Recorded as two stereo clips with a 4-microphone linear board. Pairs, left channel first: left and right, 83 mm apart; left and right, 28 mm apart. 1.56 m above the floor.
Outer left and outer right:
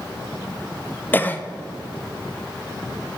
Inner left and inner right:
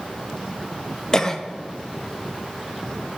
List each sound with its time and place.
1.1 s a cough: 20° left (ahead or behind), 0.7 m